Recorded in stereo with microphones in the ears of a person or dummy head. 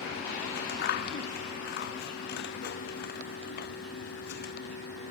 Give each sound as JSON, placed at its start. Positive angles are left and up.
{"t": 0.4, "sound": "scissors", "side_deg": 50}